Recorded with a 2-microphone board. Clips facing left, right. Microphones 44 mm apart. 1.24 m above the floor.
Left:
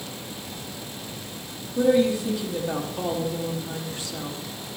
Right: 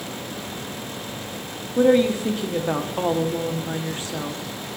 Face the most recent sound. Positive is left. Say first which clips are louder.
# right 3 dB
turn(degrees=-45)  # may be behind; listen again after turning